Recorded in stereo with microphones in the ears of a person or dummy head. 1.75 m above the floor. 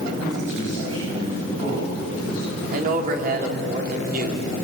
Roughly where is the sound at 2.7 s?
Right.